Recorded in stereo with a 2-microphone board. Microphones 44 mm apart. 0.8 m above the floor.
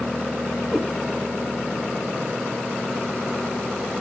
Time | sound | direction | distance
0.7 | a cat meowing | centre (ahead or behind) | 2 m